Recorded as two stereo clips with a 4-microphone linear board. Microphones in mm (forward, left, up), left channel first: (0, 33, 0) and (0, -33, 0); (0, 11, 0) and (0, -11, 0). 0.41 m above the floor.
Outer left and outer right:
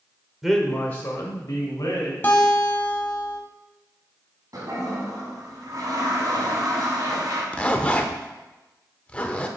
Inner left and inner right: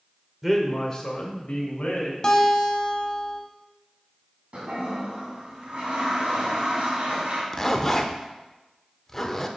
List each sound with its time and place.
0.4 s a man speaking: 5° right (ahead or behind), 0.9 m; by 2.1 s 55° left (ahead or behind), 2 m
2.2 s a guitar: 30° left (ahead or behind), 1.1 m
4.5 s a toilet flushing: 55° right (ahead or behind), 1.8 m
7.5 s a zipper: 15° left (ahead or behind), 0.6 m